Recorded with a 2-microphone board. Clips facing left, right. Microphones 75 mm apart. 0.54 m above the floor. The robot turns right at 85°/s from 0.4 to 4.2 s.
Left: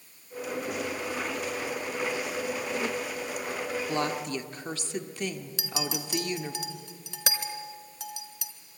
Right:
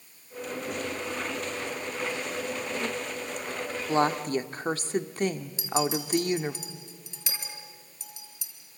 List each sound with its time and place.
3.9 s a woman speaking: 25° right (ahead or behind), 1.2 m; by 6.6 s 40° right (ahead or behind), 1.2 m
5.6 s a clink: 65° left (ahead or behind), 1.9 m